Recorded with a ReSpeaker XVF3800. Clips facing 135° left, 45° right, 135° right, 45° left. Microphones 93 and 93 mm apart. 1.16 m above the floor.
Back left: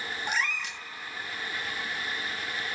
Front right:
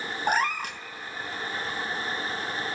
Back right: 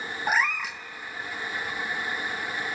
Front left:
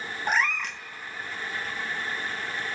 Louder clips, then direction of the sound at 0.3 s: Front right 7 dB, even; 50° right.